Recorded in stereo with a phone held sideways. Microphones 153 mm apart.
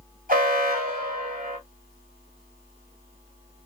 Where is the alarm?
75° right (ahead or behind), 2 m.